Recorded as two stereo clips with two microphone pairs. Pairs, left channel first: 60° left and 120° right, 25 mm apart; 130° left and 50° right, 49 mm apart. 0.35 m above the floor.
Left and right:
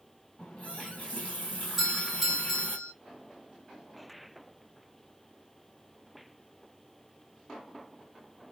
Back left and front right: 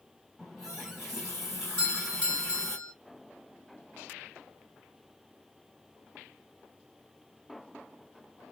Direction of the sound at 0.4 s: 35° left.